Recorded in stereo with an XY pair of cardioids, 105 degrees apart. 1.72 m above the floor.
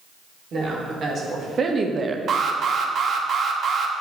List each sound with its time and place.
0.5 s a woman speaking: 50° right, 1.9 m; by 2.2 s 35° right, 0.5 m
2.3 s an alarm: 50° right, 0.7 m